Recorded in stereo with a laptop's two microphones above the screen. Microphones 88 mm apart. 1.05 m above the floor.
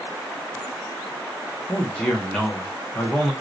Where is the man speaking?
10° left (ahead or behind), 0.7 m.